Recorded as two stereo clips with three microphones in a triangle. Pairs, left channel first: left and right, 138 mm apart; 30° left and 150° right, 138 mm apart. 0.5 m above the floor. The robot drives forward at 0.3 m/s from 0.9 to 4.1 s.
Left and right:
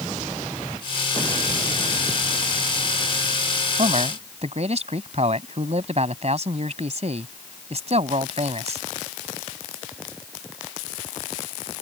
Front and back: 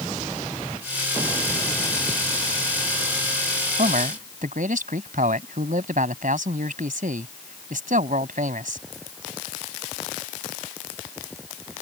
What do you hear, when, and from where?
3.8 s a man speaking: 130° right